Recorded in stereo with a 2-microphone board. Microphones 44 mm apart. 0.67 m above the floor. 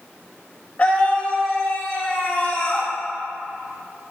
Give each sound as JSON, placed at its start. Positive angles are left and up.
{"t": 0.8, "sound": "a scream", "side_deg": 40, "distance_m": 3.5}